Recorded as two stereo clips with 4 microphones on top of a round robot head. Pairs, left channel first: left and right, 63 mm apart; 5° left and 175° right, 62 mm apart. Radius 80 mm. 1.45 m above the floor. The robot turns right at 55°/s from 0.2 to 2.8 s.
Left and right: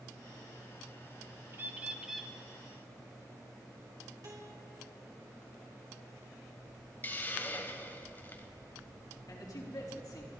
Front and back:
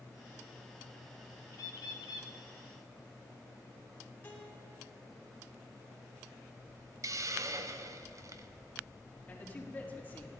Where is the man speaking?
65° left, 4 m.